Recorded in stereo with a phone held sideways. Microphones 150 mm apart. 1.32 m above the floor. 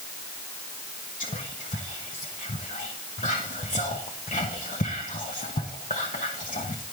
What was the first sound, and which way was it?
Whispering, 60° left (ahead or behind).